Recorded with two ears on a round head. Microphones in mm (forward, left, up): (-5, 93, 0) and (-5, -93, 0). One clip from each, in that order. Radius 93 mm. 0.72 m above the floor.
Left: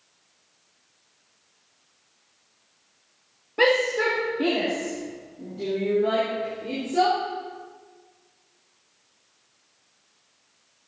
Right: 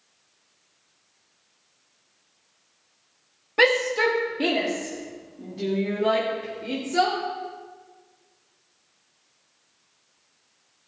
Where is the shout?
50° right (ahead or behind), 1.6 m; by 7.2 s 55° right (ahead or behind), 3.5 m.